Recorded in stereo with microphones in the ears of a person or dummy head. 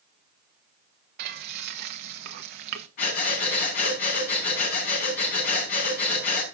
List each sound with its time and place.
1.2 s frying: 55° right (ahead or behind), 1.3 m
3.0 s breathing: 45° left (ahead or behind), 5 m